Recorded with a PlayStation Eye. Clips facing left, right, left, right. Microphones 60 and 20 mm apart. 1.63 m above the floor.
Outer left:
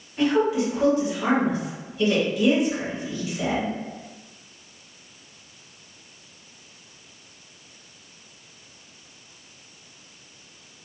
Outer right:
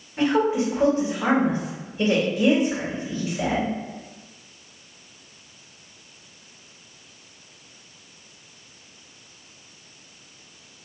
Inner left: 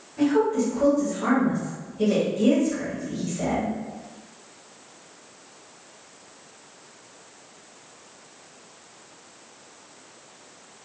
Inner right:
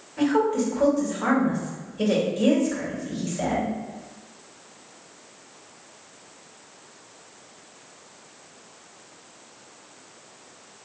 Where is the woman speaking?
35° right (ahead or behind), 1.7 m.